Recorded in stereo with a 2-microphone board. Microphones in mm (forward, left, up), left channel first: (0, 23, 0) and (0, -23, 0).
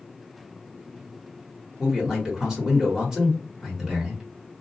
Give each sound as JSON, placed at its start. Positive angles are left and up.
{"t": 1.8, "sound": "a man speaking", "side_deg": -10, "distance_m": 1.1}